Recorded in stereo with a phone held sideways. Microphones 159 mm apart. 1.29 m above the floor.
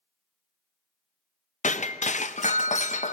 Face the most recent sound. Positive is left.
turn(degrees=50)  # may be behind; listen again after turning